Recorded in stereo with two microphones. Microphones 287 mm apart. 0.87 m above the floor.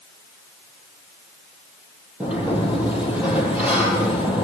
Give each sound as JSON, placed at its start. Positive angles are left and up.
{"t": 2.2, "sound": "a sliding door", "side_deg": -5, "distance_m": 8.0}